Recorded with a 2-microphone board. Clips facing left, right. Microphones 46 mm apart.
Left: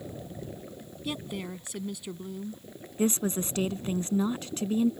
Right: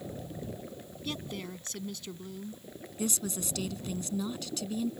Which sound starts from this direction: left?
A woman speaking, at 3.0 s.